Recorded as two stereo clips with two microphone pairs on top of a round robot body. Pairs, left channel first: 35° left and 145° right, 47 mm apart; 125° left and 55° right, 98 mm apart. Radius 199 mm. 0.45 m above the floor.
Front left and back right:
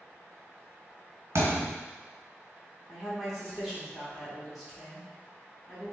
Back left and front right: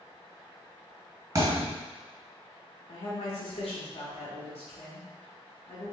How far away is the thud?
About 1.6 m.